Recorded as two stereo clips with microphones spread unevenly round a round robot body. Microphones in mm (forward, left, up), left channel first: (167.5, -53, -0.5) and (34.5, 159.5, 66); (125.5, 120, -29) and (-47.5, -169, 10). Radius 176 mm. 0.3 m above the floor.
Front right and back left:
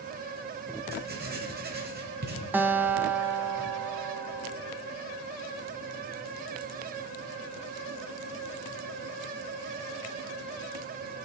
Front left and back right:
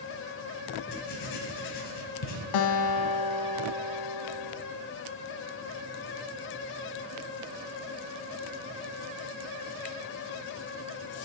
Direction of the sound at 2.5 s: 40° left.